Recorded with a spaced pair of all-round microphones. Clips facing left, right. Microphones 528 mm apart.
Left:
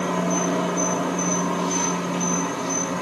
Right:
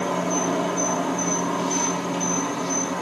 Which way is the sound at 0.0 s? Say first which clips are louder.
Left 1 dB; 65° left (ahead or behind).